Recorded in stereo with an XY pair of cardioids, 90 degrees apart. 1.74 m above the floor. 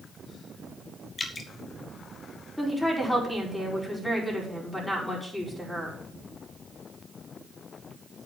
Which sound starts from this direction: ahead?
A woman speaking, at 2.6 s.